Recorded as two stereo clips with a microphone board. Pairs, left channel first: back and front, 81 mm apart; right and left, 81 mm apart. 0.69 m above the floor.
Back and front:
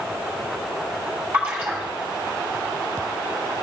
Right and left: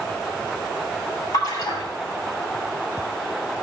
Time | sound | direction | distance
1.3 | a splash | 75° right | 3 m